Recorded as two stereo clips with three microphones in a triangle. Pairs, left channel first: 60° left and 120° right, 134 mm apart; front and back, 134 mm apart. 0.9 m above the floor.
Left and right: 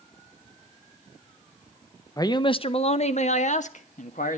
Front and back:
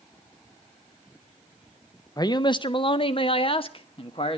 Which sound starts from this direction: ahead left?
A man speaking, at 2.2 s.